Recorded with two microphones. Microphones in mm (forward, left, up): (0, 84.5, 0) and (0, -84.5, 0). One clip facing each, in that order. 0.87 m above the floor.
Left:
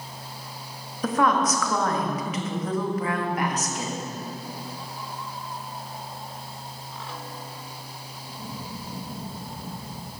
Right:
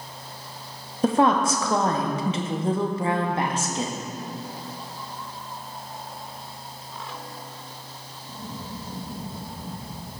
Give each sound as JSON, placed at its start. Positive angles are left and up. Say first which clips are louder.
{"t": 1.0, "sound": "a woman speaking", "louder": "right 3 dB", "side_deg": -30, "distance_m": 1.0}